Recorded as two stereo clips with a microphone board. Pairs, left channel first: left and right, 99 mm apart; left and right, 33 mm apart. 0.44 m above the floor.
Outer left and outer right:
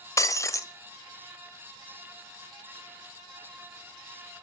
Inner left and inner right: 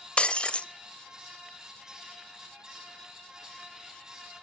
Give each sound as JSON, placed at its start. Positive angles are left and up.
{"t": 0.2, "sound": "breaking glass", "side_deg": 30, "distance_m": 1.1}